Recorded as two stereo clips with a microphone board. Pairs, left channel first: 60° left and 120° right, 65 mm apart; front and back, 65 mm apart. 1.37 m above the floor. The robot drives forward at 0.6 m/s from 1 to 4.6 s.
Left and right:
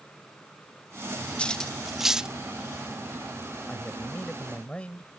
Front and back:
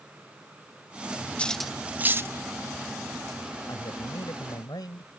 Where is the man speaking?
10° right.